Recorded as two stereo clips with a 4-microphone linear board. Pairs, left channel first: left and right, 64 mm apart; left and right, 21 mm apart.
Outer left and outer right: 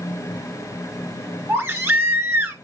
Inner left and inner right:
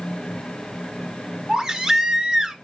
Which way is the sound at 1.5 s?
30° right (ahead or behind).